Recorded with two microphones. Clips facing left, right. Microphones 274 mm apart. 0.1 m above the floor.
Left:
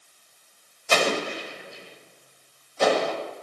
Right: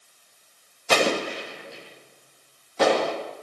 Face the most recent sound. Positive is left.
turn(degrees=-75)  # may be behind; listen again after turning